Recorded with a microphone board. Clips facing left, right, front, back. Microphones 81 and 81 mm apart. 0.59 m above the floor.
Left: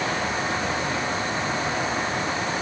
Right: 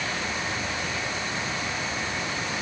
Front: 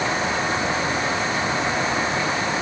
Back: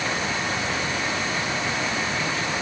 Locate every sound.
Only background noise.